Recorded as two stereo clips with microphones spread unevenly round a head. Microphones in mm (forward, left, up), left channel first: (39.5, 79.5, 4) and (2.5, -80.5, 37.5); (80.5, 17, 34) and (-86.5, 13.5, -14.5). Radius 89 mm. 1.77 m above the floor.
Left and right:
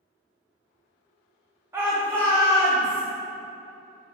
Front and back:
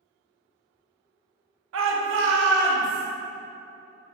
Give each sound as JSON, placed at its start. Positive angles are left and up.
{"t": 1.7, "sound": "a shout", "azimuth_deg": -170, "distance_m": 0.5}